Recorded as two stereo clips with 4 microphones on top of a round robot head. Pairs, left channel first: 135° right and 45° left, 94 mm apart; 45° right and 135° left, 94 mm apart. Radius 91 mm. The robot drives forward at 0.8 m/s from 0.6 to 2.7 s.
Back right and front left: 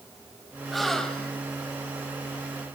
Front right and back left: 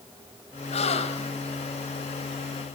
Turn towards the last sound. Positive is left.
turn(degrees=-80)